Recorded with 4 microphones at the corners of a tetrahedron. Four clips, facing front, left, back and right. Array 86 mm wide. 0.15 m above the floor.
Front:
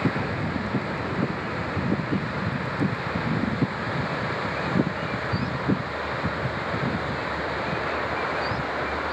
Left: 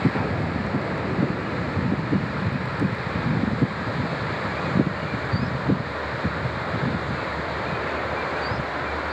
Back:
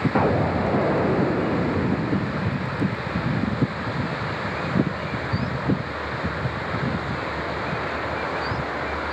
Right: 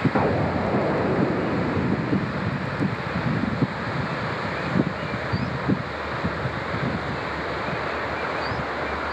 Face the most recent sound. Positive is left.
turn(degrees=-145)